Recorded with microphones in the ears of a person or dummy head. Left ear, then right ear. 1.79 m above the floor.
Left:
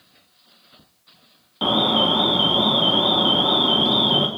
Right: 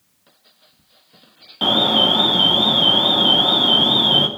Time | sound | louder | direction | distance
1.6 | an alarm | right 3 dB | 10° right (ahead or behind) | 1.2 m